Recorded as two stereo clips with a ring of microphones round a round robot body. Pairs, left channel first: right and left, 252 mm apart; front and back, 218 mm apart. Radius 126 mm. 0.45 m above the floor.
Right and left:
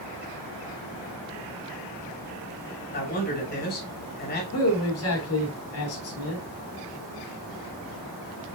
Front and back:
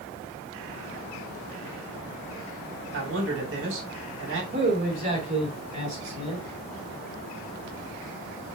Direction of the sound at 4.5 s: 120° right.